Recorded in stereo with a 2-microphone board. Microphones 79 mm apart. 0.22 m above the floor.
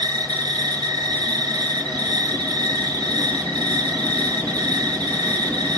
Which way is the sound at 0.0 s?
75° right (ahead or behind).